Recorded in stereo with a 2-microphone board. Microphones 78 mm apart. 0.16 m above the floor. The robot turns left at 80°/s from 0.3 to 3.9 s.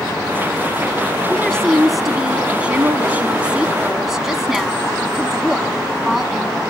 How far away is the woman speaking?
About 1.0 m.